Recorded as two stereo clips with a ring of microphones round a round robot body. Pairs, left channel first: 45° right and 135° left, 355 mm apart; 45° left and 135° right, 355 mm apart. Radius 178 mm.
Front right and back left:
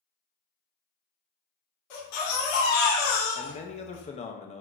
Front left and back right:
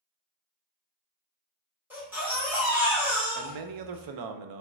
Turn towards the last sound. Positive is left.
turn(degrees=-115)